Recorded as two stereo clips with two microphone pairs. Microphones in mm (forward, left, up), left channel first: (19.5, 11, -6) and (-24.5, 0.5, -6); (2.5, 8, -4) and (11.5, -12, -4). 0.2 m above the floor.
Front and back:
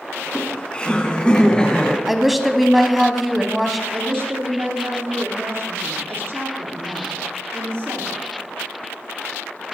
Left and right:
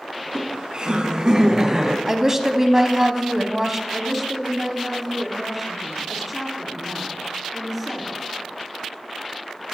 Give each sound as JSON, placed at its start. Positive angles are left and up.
{"t": 0.2, "sound": "laughter", "azimuth_deg": -45, "distance_m": 1.8}
{"t": 2.1, "sound": "a woman speaking", "azimuth_deg": -85, "distance_m": 1.0}
{"t": 3.9, "sound": "a woman speaking", "azimuth_deg": -160, "distance_m": 2.5}